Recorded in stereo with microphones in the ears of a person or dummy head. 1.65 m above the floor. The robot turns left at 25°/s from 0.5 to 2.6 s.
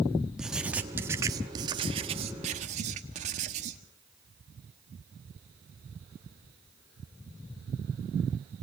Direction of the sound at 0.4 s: 5° right.